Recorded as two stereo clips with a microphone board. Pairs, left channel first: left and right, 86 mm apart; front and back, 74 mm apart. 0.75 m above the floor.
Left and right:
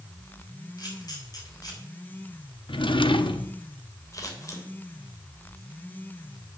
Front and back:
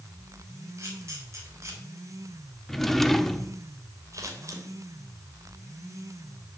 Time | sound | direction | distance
0.8 | a camera shutter | 130° left | 5.5 m
2.7 | a drawer | 85° left | 0.8 m
4.1 | scissors | 135° left | 3.5 m